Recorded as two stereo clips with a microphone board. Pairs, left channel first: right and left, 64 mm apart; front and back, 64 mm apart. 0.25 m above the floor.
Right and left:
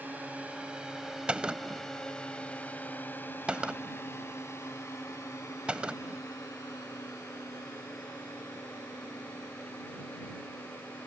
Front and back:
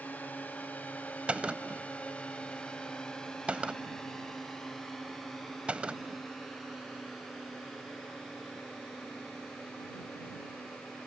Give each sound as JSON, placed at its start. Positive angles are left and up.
{"t": 0.0, "sound": "a drone", "azimuth_deg": 45}
{"t": 1.3, "sound": "a gunshot", "azimuth_deg": 140}